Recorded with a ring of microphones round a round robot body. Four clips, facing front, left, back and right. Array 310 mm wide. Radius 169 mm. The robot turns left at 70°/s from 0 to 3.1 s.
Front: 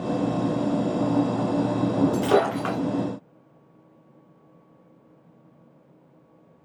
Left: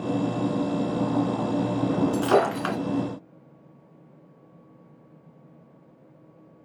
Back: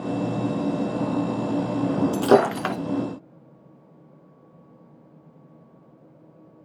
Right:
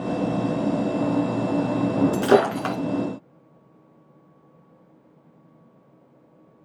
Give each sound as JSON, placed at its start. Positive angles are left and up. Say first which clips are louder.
{"t": 2.1, "sound": "breaking glass", "louder": "right 4 dB, back 3 dB", "azimuth_deg": -150, "distance_m": 2.5}